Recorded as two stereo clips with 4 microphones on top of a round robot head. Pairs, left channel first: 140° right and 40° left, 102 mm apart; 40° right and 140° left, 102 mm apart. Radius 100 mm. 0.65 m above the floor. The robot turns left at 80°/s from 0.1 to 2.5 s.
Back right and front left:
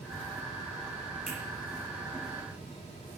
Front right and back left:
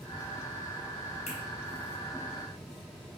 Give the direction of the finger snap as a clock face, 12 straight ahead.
1 o'clock.